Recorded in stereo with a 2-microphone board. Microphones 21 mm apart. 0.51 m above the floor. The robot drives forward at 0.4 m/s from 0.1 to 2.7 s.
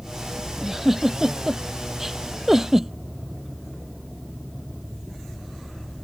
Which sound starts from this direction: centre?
A giggle, at 0.6 s.